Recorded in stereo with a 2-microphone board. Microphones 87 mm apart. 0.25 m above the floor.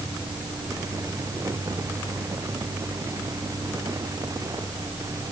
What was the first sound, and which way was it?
Only background noise.